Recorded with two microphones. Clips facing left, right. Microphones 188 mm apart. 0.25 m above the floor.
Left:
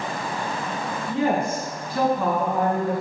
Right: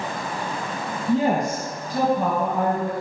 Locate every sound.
1.1 s a woman speaking: 40° right (ahead or behind), 2.5 m; by 2.9 s 50° right (ahead or behind), 2 m